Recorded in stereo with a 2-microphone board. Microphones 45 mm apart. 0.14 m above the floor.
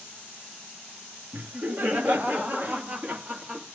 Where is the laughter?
45° right (ahead or behind), 2.5 m; by 3.6 s 35° right (ahead or behind), 3 m.